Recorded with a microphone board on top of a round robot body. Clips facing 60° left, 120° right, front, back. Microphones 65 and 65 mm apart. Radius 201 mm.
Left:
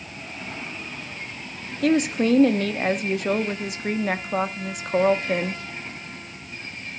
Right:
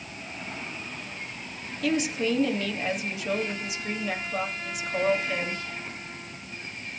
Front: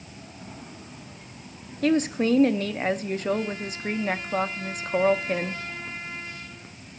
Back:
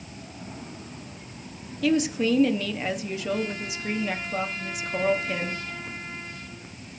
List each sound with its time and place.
1.8 s a woman speaking: 35° left, 1.3 m